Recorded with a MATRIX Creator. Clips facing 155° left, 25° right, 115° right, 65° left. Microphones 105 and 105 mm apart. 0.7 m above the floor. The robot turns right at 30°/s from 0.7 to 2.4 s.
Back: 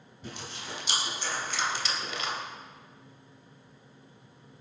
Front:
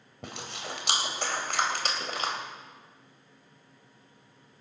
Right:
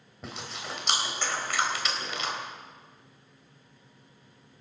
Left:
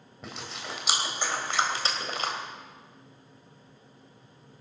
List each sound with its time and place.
0.2 s chewing: 25° right, 3 m; by 2.3 s 25° left, 3 m